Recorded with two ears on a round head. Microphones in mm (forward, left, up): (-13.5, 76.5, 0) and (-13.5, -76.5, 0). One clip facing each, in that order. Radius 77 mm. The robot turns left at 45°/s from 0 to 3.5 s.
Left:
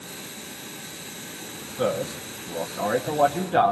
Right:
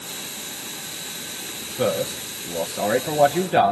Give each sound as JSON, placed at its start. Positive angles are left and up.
{"t": 1.8, "sound": "a man speaking", "side_deg": -15, "distance_m": 0.8}